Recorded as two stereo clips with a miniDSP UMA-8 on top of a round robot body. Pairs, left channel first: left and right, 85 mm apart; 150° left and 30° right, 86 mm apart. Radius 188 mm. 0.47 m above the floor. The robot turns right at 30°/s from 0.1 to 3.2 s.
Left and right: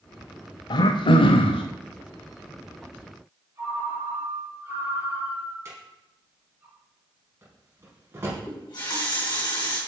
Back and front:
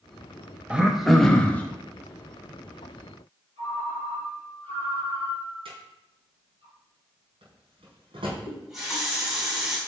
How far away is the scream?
No scream in this recording.